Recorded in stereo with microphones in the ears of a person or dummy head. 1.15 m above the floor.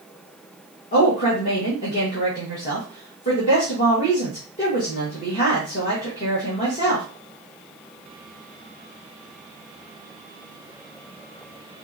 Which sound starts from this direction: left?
A woman speaking, at 0.9 s.